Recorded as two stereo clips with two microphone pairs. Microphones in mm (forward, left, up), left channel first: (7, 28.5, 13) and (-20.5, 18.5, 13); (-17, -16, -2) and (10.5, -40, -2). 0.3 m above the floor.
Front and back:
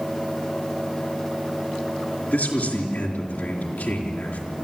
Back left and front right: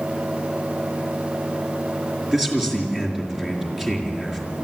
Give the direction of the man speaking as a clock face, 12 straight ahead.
11 o'clock.